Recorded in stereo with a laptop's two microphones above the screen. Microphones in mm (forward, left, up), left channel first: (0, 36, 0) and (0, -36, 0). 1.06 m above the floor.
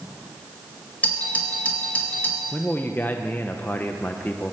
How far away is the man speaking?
About 0.6 m.